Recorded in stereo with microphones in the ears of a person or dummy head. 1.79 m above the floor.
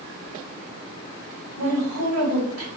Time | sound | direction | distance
1.6 | a woman speaking | 65° right (ahead or behind) | 1.4 m